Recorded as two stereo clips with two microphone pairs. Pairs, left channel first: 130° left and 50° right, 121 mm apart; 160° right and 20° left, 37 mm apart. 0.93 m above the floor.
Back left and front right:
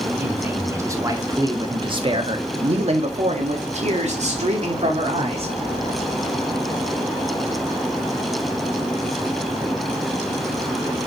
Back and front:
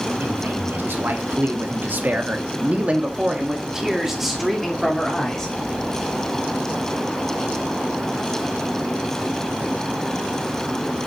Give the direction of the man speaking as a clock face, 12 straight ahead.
11 o'clock.